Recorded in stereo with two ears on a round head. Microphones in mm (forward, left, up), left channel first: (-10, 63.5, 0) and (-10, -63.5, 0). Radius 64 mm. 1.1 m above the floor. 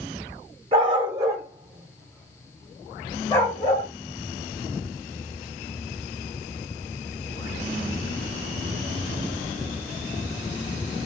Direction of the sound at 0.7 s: 40° right (ahead or behind).